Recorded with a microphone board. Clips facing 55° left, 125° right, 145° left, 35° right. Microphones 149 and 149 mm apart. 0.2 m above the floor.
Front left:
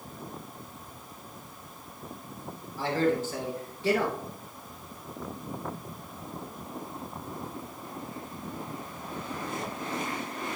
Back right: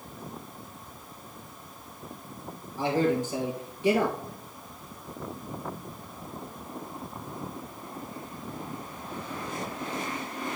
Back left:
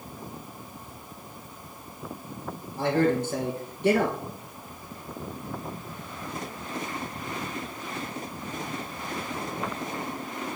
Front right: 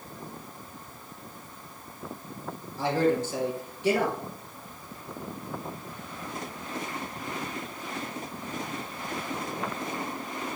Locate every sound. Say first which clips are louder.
2.8 s a man speaking: back right 1 dB, back left 1 dB; 165° left, 2.5 m